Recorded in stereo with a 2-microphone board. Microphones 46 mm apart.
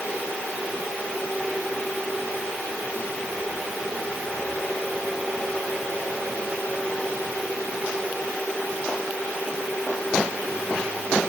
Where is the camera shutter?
I don't hear a camera shutter.